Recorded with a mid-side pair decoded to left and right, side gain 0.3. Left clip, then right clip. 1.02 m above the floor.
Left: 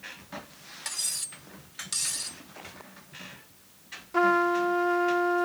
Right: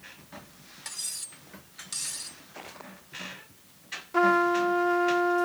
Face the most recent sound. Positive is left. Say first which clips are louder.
# right 1 dB
turn(degrees=-10)